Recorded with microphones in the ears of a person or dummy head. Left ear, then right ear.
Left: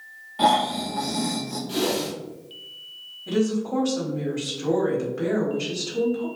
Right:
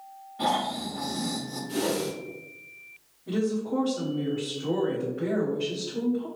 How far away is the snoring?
About 0.5 m.